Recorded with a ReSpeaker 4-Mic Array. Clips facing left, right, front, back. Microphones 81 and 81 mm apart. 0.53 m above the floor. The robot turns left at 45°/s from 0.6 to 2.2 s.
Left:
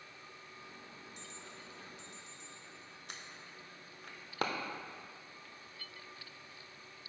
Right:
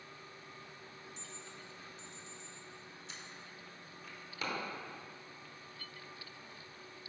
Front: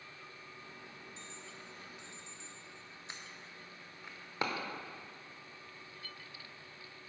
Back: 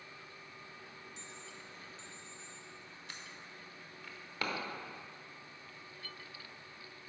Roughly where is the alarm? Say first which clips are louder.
Even, even; left.